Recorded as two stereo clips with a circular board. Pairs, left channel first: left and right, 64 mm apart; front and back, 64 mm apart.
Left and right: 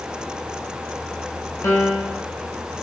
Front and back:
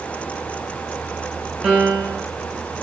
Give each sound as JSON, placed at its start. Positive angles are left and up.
{"t": 1.6, "sound": "a piano", "azimuth_deg": 110, "distance_m": 0.8}